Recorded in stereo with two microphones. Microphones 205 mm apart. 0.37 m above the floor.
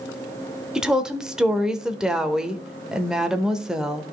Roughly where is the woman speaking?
Centre.